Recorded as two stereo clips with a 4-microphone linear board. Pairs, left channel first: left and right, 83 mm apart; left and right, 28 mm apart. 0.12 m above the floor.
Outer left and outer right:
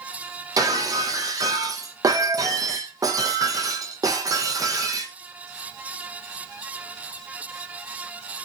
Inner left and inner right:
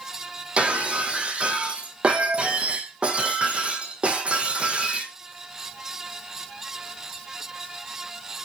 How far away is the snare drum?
No snare drum in this recording.